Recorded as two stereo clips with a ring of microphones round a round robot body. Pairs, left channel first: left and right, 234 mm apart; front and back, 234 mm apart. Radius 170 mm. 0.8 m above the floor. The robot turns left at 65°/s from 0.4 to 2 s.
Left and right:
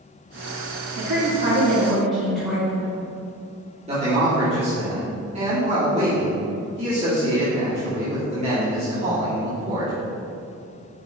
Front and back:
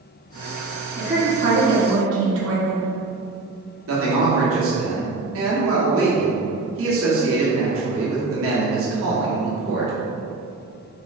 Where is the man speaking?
155° right, 2.5 m.